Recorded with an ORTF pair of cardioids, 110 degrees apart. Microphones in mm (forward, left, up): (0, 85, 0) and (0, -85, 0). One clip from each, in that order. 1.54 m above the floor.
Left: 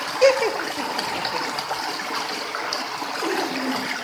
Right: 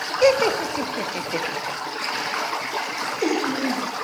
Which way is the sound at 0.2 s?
5° left.